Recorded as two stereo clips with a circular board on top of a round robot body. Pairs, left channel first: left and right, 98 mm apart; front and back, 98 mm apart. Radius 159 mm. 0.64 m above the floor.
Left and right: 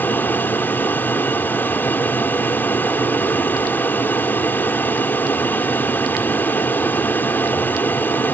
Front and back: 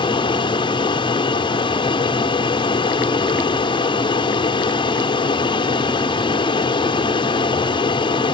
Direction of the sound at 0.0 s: 20° left.